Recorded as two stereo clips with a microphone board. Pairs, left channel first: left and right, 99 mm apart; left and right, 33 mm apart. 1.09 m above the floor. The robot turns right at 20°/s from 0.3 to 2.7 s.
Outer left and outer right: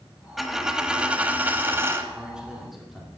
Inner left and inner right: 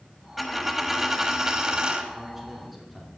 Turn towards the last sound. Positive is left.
turn(degrees=0)  # may be behind; listen again after turning